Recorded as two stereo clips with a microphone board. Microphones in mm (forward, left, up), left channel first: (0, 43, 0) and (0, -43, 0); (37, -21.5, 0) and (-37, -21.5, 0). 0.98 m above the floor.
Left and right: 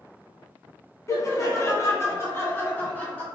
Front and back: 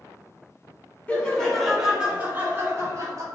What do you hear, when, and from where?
1.1 s laughter: 65° left, 1.1 m; by 3.2 s 160° left, 1.2 m